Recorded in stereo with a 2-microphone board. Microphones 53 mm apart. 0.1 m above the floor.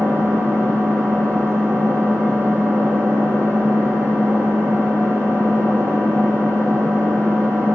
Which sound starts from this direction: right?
An engine running, at 0.0 s.